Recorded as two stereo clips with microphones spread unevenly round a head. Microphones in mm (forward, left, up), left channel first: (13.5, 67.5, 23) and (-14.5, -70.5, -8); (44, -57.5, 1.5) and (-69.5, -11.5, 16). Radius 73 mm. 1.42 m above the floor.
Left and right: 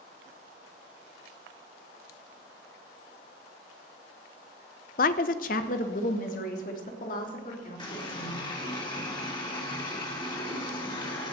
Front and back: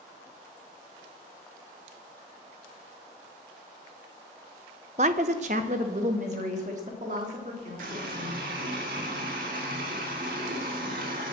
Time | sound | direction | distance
5.0 | a woman speaking | 110° left | 0.7 m
7.8 | a running tap | 135° left | 2.5 m